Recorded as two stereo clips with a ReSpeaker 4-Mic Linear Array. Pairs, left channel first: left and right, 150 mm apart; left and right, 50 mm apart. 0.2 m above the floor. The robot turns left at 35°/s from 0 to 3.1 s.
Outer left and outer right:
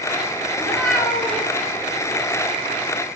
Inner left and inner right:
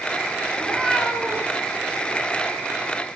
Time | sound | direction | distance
0.6 | a cat meowing | 10° left | 1.6 m